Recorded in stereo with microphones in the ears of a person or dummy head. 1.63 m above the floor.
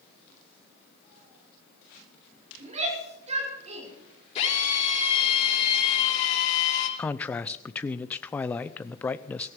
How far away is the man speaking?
About 0.6 m.